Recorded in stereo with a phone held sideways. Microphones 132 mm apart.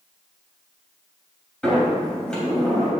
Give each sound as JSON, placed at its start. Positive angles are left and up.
{"t": 1.6, "sound": "a sliding door", "side_deg": 5, "distance_m": 3.0}